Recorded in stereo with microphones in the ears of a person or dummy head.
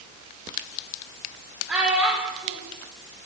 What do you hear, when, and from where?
1.7 s a child speaking: 10° right (ahead or behind), 1.8 m